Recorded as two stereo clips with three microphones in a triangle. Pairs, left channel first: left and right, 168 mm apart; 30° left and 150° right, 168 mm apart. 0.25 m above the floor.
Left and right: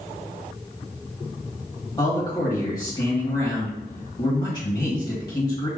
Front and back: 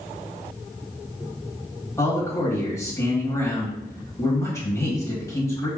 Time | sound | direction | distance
2.0 | a man speaking | 75° left | 1.5 m